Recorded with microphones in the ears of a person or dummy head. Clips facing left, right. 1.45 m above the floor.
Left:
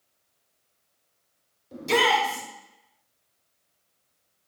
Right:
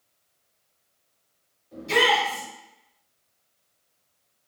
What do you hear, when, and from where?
1.7 s a shout: 60° left (ahead or behind), 1.2 m